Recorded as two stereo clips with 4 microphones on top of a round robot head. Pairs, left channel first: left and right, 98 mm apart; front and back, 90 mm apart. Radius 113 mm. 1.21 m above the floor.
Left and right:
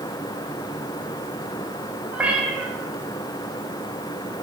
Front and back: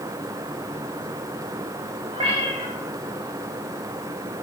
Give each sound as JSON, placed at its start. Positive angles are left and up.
{"t": 2.1, "sound": "a cat meowing", "azimuth_deg": -165, "distance_m": 4.5}